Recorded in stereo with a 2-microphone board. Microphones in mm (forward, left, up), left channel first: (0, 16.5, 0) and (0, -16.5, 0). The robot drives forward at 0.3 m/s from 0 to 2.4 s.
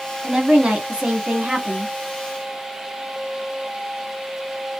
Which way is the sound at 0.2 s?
35° right (ahead or behind).